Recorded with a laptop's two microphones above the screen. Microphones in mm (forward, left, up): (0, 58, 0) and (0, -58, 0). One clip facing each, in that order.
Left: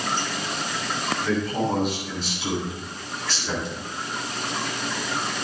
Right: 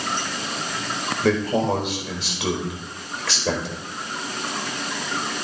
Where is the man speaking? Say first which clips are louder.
Right 5 dB; 75° right (ahead or behind), 4 m.